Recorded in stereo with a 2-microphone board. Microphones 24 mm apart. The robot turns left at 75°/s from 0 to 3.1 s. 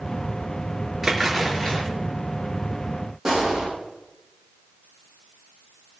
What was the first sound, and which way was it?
A splash, 170° right.